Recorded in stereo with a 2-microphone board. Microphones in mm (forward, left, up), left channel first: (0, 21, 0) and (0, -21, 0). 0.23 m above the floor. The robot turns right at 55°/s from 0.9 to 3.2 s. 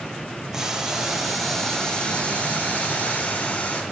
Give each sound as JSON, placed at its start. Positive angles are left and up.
{"t": 0.5, "sound": "boiling", "azimuth_deg": -15, "distance_m": 1.4}